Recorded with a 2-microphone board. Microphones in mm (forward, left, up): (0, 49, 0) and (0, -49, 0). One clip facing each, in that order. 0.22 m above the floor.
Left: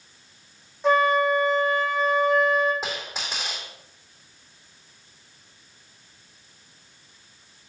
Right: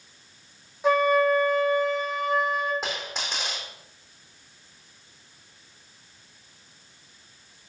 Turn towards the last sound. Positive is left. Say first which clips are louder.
# even
turn(degrees=0)  # may be behind; listen again after turning